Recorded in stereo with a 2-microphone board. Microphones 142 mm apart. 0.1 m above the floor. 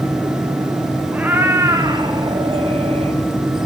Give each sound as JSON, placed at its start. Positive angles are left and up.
{"t": 1.1, "sound": "a cat meowing", "side_deg": -10, "distance_m": 2.5}